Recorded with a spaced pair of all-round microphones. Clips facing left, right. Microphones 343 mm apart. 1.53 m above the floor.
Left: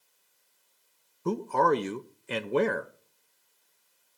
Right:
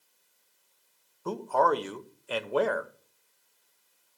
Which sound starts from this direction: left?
A man speaking, at 1.2 s.